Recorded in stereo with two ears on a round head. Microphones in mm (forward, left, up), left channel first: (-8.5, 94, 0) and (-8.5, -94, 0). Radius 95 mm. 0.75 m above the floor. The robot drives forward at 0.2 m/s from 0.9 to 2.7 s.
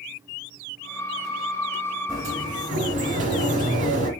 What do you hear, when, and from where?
2.1 s a sliding door: 40° right (ahead or behind), 2 m